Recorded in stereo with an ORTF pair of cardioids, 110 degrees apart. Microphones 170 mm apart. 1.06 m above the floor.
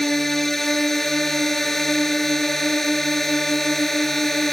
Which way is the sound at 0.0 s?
Straight ahead.